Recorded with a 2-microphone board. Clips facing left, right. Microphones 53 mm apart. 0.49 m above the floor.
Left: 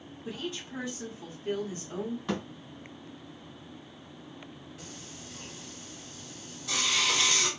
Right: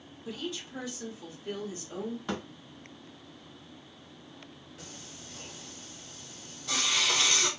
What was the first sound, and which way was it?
A woman speaking, 35° left (ahead or behind).